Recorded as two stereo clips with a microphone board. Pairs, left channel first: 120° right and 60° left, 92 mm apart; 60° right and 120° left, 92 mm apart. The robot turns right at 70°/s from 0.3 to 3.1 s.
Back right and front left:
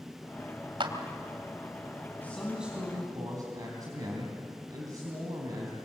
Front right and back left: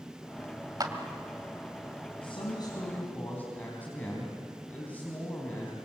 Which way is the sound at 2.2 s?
50° right.